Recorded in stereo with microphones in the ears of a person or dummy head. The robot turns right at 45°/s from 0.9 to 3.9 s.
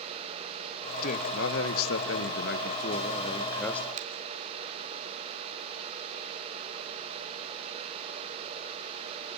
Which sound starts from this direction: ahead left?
A man speaking, at 1.0 s.